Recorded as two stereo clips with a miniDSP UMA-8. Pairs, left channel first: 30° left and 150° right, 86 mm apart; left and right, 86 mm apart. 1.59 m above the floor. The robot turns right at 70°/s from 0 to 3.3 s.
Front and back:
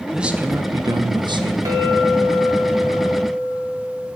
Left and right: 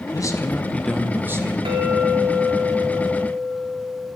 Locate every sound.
0.1 s a man speaking: 125° left, 0.9 m; by 1.6 s 135° right, 0.9 m
1.6 s a clink: 105° right, 3.5 m; by 4.1 s 10° left, 3.5 m